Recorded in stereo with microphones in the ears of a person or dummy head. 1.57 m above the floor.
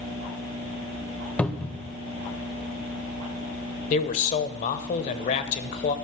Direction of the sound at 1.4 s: 10° left (ahead or behind).